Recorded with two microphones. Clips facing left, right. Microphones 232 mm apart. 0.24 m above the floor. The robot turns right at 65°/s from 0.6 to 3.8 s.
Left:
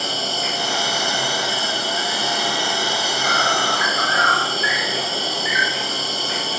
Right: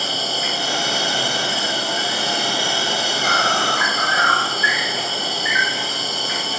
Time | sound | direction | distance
0.0 | an insect | 175° right | 5 m